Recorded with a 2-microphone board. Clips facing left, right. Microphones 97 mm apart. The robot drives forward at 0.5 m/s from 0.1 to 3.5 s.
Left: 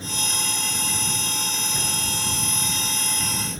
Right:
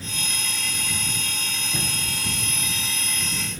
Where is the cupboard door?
60° right (ahead or behind), 4.5 m.